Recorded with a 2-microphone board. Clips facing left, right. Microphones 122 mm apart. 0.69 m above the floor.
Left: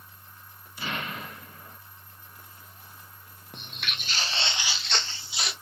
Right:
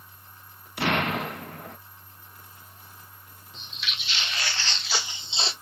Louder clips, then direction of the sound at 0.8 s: Right 9 dB; 70° right (ahead or behind).